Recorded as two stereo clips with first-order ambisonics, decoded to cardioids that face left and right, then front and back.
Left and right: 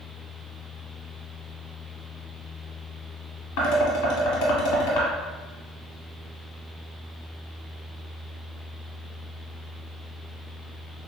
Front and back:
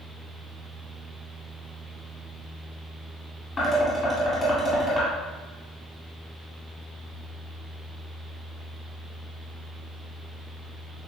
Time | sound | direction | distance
3.6 | dishes clattering | 80° left | 1.8 m